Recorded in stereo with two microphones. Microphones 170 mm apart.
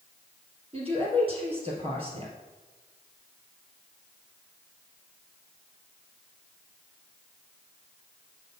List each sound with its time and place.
0.7 s a woman speaking: 35° right (ahead or behind), 3 m